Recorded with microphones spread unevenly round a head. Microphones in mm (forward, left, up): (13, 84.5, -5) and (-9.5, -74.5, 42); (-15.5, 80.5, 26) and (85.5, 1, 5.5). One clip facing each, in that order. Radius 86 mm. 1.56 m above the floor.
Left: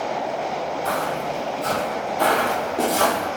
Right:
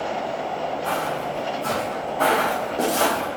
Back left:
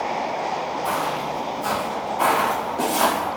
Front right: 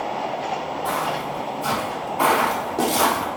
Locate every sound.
0.8 s footsteps: 70° left, 1.8 m; by 3.3 s straight ahead, 2.5 m